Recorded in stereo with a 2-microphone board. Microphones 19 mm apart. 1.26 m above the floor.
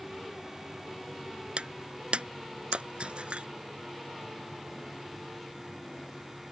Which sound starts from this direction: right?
Breaking glass, at 1.6 s.